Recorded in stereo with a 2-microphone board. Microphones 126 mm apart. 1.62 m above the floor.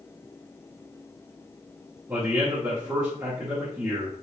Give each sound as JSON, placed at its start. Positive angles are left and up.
{"t": 2.1, "sound": "a man speaking", "side_deg": -25, "distance_m": 1.6}